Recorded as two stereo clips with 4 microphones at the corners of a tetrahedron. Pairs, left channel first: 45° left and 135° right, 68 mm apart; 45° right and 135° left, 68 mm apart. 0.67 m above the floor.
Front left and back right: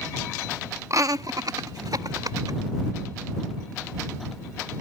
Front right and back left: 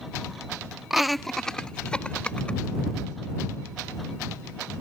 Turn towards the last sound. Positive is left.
turn(degrees=-115)